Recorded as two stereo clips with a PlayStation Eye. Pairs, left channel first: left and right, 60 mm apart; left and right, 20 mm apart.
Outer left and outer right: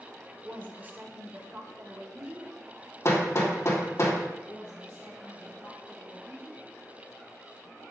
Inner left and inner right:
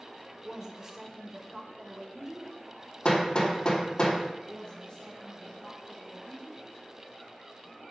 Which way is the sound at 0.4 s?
30° right (ahead or behind).